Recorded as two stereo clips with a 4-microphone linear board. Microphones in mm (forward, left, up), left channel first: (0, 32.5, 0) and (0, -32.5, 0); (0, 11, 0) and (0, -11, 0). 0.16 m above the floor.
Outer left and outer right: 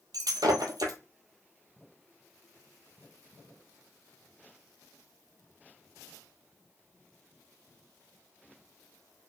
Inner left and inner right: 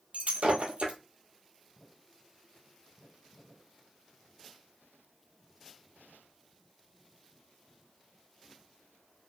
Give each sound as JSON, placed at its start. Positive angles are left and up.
{"t": 0.1, "sound": "breaking glass", "side_deg": -85, "distance_m": 0.7}